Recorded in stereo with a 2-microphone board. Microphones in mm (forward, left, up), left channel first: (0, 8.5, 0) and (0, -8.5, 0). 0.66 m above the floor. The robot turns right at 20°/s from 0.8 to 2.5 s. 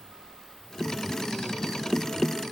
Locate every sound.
Only background noise.